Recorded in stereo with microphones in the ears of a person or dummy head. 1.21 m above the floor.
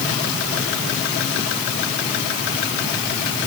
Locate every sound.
Only background noise.